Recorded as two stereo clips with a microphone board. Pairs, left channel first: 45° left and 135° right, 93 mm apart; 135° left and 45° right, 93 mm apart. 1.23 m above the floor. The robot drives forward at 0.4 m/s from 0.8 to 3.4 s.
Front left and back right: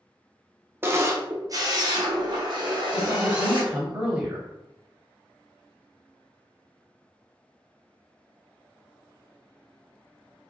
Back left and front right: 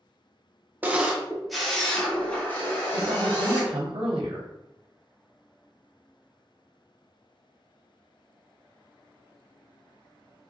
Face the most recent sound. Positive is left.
turn(degrees=-70)